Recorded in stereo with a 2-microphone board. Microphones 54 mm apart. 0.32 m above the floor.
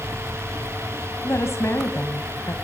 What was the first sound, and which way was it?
A woman speaking, 60° left (ahead or behind).